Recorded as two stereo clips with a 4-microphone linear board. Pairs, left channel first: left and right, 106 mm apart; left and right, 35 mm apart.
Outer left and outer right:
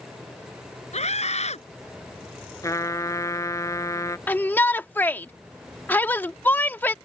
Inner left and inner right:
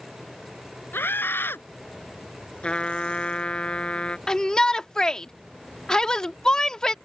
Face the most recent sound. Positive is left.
turn(degrees=20)  # may be behind; listen again after turning